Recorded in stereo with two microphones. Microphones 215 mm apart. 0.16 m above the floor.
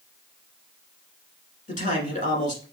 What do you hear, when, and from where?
1.7 s a man speaking: 35° left (ahead or behind), 1.6 m